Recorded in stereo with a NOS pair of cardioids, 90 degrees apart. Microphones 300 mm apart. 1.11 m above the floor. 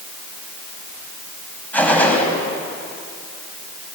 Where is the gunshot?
5° left, 5 m.